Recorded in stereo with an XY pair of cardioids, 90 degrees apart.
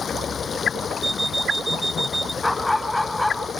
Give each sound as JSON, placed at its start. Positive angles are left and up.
{"t": 0.0, "sound": "running water", "azimuth_deg": 45}
{"t": 1.0, "sound": "an alarm clock", "azimuth_deg": -15}
{"t": 2.4, "sound": "a dog barking", "azimuth_deg": 10}